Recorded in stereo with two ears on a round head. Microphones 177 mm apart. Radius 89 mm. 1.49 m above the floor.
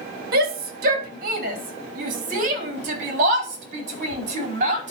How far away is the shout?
About 2.5 m.